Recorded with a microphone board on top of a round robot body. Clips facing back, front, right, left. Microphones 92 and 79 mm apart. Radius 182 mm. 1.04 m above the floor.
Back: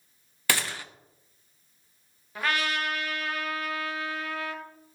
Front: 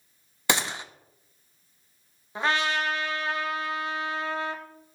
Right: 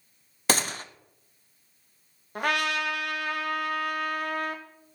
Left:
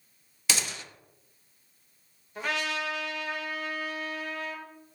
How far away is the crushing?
No crushing in this recording.